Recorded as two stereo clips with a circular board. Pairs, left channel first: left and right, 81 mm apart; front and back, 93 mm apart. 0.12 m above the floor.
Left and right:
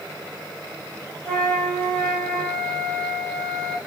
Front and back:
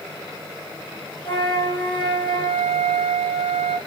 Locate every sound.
1.2 s a flute: 15° left, 1.7 m